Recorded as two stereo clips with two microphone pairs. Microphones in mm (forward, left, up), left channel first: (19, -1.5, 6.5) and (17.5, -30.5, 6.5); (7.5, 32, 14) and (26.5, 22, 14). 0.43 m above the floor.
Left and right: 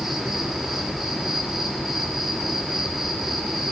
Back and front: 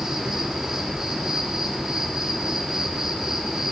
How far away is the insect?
About 1.5 m.